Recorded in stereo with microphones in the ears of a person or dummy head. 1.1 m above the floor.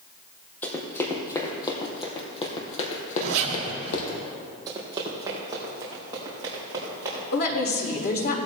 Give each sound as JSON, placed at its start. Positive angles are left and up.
{"t": 0.6, "sound": "running footsteps", "side_deg": 10, "distance_m": 2.5}
{"t": 3.2, "sound": "a zipper", "side_deg": -70, "distance_m": 2.0}
{"t": 4.7, "sound": "running footsteps", "side_deg": -25, "distance_m": 2.5}
{"t": 7.3, "sound": "a woman speaking", "side_deg": 50, "distance_m": 2.5}